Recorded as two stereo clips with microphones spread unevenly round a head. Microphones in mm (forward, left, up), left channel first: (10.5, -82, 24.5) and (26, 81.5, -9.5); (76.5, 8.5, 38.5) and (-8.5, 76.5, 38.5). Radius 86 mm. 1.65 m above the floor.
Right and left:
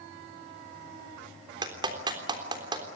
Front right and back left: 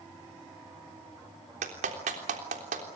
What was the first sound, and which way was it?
A clap, 155° left.